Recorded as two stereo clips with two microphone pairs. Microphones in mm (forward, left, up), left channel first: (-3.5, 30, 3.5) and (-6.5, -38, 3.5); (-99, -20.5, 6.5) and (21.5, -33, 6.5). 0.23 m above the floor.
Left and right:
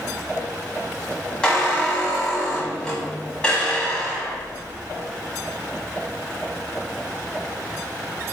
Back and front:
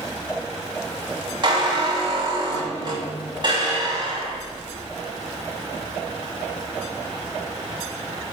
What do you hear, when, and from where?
1.4 s a squeak: 15° left, 1.2 m